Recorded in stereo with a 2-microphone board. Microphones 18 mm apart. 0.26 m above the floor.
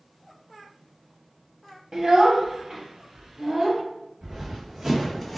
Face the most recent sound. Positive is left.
turn(degrees=-5)  # may be behind; listen again after turning